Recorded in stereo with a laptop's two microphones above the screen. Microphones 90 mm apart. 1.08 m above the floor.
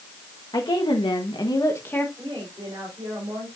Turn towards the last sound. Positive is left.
turn(degrees=-45)  # may be behind; listen again after turning